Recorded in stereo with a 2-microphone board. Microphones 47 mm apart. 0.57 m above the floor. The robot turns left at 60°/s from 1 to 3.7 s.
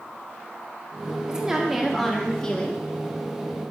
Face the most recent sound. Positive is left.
turn(degrees=70)